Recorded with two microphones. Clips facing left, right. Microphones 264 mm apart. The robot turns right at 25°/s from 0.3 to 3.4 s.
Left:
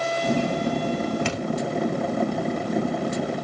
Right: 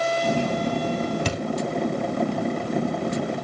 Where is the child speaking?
I don't hear a child speaking.